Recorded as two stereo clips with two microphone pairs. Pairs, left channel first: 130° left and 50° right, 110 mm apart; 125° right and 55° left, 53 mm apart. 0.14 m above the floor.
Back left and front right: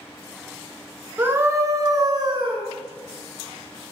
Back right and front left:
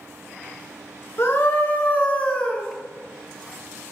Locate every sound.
1.2 s a scream: 115° right, 1.5 m; by 2.6 s 60° right, 1.5 m